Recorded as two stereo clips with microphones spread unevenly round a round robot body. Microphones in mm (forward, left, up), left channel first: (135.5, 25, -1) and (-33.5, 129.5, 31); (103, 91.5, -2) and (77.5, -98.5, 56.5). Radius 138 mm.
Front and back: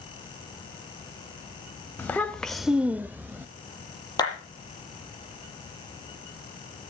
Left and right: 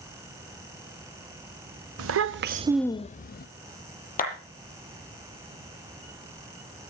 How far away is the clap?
About 7.5 m.